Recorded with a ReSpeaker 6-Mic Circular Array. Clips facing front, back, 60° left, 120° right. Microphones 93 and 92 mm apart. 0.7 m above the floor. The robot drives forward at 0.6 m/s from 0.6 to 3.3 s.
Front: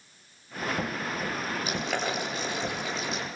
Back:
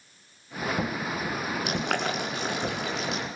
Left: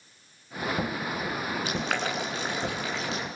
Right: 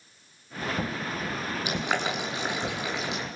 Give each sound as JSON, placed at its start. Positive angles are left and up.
{"t": 1.6, "sound": "boiling", "azimuth_deg": 165, "distance_m": 9.0}